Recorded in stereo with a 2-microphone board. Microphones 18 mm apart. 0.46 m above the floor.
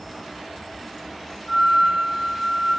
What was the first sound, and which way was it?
A flute, centre (ahead or behind).